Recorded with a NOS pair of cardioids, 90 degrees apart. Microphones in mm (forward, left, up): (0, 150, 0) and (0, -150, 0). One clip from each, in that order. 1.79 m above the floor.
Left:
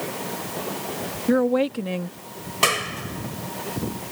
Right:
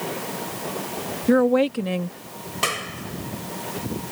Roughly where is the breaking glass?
I don't hear breaking glass.